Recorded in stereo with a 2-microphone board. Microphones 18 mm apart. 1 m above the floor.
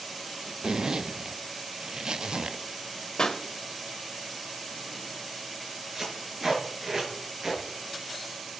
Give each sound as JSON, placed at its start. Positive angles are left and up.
{"t": 0.6, "sound": "a zipper", "side_deg": -50, "distance_m": 0.5}
{"t": 3.2, "sound": "a pop", "side_deg": 55, "distance_m": 1.3}
{"t": 6.0, "sound": "tape being pulled", "side_deg": -30, "distance_m": 4.5}